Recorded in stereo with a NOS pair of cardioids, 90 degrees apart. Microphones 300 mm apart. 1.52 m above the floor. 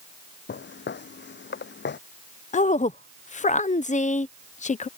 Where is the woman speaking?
25° left.